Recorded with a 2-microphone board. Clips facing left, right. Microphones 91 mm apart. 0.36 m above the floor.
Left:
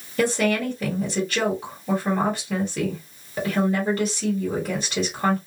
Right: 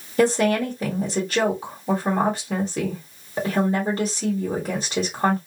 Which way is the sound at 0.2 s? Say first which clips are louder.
Right 3 dB; 15° right (ahead or behind).